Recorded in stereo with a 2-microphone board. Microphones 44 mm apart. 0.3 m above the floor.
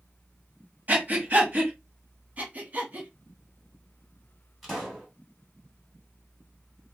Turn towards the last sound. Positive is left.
turn(degrees=0)  # may be behind; listen again after turning